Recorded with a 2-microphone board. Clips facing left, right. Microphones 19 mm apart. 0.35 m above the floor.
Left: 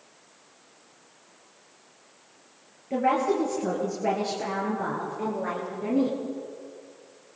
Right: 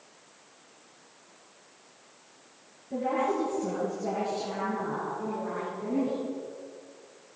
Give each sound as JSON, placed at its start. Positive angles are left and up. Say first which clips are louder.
{"t": 2.9, "sound": "a woman speaking", "louder": "left 4 dB", "side_deg": 70, "distance_m": 8.0}